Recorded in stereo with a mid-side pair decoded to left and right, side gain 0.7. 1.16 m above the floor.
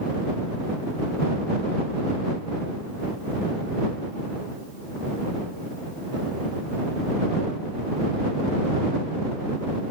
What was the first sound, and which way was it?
Only background noise.